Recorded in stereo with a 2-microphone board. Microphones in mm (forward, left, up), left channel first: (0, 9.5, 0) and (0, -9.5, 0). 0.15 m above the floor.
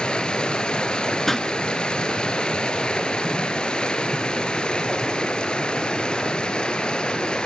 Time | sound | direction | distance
0.0 | running water | 50° left (ahead or behind) | 1.3 m
1.3 | a pop | 15° left (ahead or behind) | 1.0 m